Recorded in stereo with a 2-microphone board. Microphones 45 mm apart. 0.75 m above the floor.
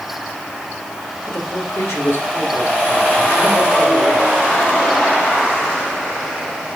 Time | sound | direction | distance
1.3 | a man speaking | 70° left (ahead or behind) | 4 m